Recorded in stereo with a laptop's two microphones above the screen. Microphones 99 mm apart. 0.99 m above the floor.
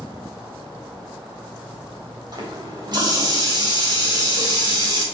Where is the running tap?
45° right (ahead or behind), 3 m.